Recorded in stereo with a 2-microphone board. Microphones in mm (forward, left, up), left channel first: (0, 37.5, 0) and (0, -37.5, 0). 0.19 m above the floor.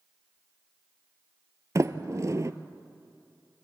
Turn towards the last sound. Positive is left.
turn(degrees=-45)  # may be behind; listen again after turning